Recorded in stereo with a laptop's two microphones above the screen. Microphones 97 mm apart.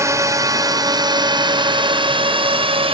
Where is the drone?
30° right (ahead or behind); by 2.9 s 70° right (ahead or behind).